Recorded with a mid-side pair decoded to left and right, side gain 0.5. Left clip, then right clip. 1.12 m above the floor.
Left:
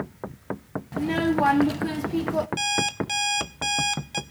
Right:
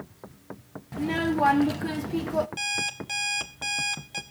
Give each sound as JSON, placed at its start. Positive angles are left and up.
{"t": 0.9, "sound": "a child speaking", "azimuth_deg": 5, "distance_m": 1.1}
{"t": 2.6, "sound": "an alarm clock", "azimuth_deg": 25, "distance_m": 1.3}